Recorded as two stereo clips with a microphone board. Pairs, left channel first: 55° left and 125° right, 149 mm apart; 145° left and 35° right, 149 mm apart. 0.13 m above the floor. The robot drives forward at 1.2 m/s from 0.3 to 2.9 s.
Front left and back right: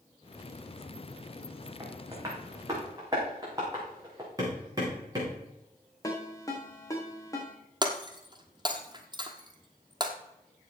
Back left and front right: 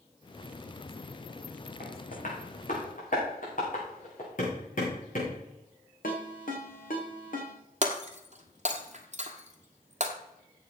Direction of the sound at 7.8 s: 70° right.